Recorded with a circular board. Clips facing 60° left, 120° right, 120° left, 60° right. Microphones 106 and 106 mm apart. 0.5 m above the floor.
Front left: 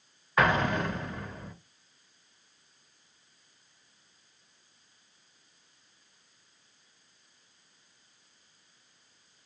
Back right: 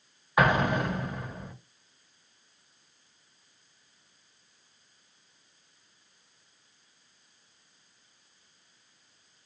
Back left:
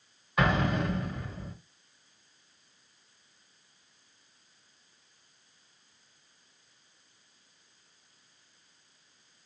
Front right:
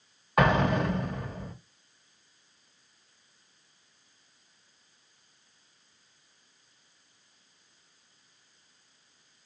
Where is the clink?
I don't hear a clink.